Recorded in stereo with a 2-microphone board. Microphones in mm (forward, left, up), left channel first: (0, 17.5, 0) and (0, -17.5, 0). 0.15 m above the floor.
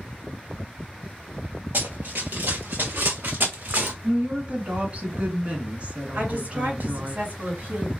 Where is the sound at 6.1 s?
55° right (ahead or behind), 2.5 m.